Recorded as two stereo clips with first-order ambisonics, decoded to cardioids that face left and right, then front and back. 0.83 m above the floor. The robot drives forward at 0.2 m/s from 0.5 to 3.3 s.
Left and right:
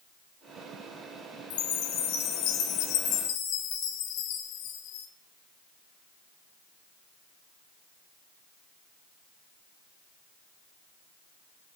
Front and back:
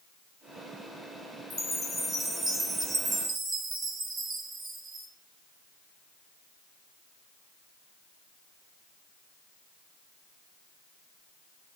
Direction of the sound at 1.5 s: 85° left.